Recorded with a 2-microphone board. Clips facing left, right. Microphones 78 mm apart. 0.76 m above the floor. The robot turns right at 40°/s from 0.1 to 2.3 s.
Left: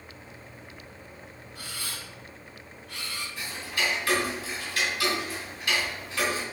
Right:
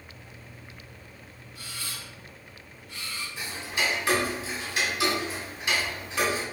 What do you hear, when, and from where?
1.6 s a camera shutter: 70° left (ahead or behind), 2 m; by 3.3 s 80° left, 2 m
3.4 s ticking: 25° right (ahead or behind), 2.5 m